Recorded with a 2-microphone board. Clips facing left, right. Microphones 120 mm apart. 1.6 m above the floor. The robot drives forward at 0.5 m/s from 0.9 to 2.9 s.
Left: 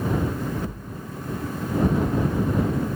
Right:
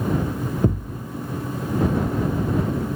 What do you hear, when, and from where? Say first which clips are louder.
0.6 s a thud: right 10 dB; 45° right (ahead or behind)